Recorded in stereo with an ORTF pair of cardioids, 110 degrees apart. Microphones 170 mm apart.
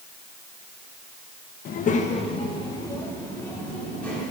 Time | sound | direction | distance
1.6 | a child speaking | 60° left | 1.2 m